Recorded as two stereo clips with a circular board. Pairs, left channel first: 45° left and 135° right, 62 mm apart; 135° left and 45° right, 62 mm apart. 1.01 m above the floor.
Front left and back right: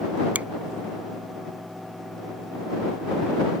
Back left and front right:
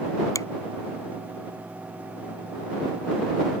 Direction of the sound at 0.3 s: 160° left.